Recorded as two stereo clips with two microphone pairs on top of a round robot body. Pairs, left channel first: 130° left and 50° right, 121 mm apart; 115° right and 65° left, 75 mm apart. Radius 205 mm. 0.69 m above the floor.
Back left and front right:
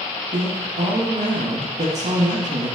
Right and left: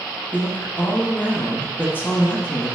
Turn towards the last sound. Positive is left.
turn(degrees=-50)